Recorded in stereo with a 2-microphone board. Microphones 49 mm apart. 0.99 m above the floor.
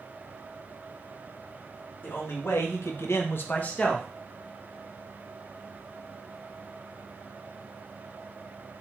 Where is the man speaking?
50° left (ahead or behind), 1.3 m; by 4.1 s 15° left (ahead or behind), 0.9 m.